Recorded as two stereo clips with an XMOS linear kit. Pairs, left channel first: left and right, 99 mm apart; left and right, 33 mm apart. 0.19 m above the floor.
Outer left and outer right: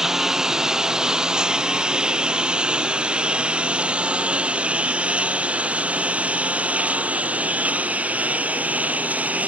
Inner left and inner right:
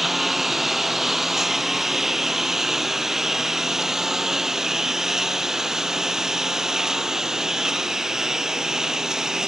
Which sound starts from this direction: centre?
A lawn mower, at 0.0 s.